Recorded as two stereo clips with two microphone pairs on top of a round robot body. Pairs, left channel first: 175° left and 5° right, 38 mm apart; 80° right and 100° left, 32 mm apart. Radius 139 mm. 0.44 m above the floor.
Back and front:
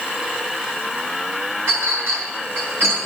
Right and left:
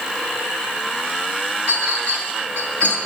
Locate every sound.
1.7 s a clink: 25° right, 5 m